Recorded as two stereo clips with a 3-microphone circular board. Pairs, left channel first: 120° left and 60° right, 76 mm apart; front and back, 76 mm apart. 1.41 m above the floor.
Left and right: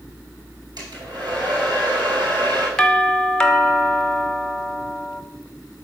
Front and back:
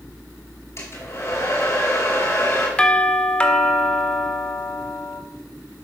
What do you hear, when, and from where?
0.8 s a hair dryer: 50° right, 4 m
2.8 s a doorbell: 55° left, 0.9 m